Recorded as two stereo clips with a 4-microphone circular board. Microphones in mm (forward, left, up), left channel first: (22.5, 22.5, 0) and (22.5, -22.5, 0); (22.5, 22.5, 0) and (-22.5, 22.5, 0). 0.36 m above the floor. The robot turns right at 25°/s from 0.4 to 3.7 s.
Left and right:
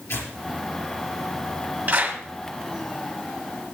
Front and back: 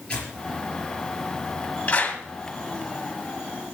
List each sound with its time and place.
0.1 s tearing paper: 70° left, 4.5 m
1.9 s a clap: 55° right, 1.9 m; by 2.2 s 45° right, 1.9 m